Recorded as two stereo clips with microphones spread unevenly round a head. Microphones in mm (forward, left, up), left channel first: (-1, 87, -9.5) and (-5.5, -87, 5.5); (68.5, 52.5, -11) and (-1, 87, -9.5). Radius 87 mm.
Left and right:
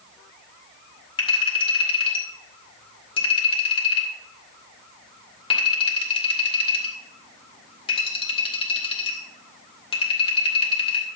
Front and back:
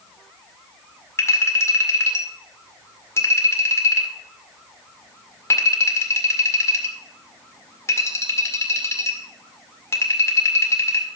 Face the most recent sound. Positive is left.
turn(degrees=25)